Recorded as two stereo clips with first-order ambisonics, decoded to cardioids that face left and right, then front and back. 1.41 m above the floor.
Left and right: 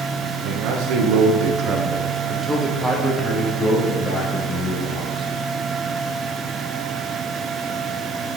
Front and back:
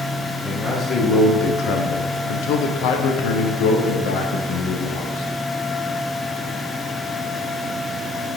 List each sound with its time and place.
0.4 s a man speaking: 85° right, 1.0 m; by 5.2 s 25° left, 2 m